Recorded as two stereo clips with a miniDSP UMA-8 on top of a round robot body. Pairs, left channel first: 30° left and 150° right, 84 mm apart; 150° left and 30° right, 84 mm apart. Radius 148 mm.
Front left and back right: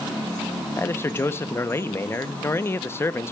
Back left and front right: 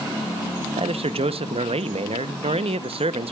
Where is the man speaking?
35° right, 1.0 m.